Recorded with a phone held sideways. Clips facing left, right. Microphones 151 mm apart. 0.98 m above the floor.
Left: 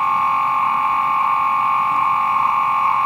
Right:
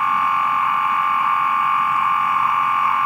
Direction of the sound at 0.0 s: 30° left (ahead or behind).